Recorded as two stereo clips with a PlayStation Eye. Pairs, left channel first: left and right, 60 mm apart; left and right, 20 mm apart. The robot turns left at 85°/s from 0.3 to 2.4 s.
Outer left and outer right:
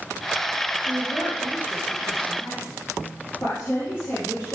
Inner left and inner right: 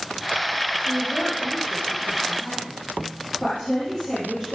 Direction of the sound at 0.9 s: 85° right.